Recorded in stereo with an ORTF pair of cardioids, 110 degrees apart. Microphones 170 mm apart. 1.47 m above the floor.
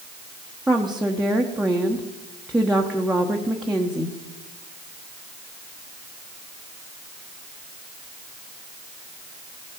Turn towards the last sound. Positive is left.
turn(degrees=-5)